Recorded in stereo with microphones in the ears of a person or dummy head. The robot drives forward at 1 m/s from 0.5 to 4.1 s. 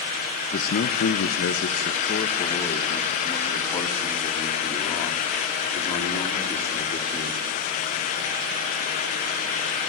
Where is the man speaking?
45° left (ahead or behind), 1.1 m; by 7.4 s 15° left (ahead or behind), 3 m.